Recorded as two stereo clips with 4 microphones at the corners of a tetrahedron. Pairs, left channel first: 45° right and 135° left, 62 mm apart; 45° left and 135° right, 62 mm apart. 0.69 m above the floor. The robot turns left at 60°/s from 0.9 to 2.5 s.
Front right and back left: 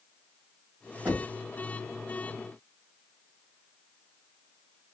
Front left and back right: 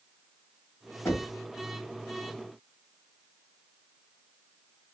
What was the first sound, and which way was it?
Knocking, 85° left.